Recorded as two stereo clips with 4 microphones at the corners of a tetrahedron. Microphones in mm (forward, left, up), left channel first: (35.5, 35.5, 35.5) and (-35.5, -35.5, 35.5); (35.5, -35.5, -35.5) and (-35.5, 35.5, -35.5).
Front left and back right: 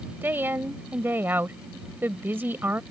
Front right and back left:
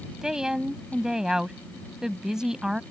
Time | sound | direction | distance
0.2 | a woman speaking | 155° right | ?